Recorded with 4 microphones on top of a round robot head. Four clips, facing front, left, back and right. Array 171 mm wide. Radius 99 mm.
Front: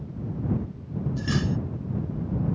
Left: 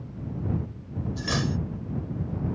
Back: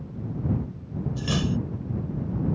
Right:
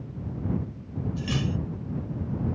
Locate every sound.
1.2 s cutlery clinking: 130° left